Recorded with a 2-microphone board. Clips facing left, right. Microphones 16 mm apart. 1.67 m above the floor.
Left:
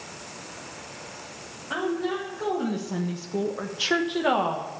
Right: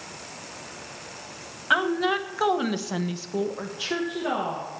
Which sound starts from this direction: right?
A woman speaking, at 1.7 s.